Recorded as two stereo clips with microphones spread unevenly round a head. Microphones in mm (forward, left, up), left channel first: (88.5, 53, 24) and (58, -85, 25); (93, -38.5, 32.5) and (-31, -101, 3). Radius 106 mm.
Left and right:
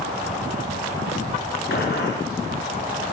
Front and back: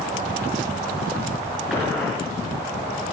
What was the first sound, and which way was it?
A gunshot, 115° left.